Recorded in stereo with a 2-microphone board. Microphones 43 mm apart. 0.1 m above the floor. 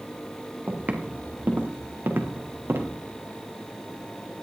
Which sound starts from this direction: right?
Footsteps, at 0.7 s.